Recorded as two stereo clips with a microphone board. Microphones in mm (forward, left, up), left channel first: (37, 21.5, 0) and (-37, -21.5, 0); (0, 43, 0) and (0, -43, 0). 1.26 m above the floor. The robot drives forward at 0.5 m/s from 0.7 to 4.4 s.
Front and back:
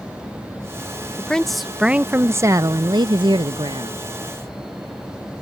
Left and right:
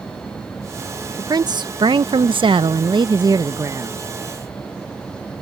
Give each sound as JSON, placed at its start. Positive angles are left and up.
{"t": 1.2, "sound": "a woman speaking", "azimuth_deg": -50}